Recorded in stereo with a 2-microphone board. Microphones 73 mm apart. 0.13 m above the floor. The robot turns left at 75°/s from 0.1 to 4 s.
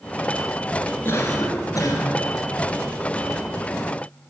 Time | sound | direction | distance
1.1 | a cough | 140° left | 1.6 m